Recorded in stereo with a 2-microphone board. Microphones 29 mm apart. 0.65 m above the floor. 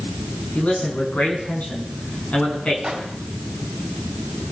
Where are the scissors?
No scissors in this recording.